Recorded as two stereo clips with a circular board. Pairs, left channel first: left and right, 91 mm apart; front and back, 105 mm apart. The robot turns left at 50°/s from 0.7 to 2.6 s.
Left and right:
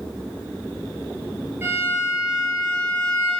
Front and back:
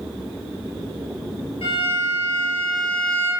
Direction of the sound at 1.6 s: 25° right.